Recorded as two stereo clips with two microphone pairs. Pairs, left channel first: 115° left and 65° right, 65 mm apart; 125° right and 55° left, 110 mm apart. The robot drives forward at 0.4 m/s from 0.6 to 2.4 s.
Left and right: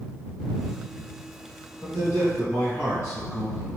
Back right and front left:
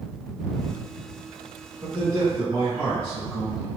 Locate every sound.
1.8 s a man speaking: 90° left, 1.6 m; by 3.7 s 105° left, 1.6 m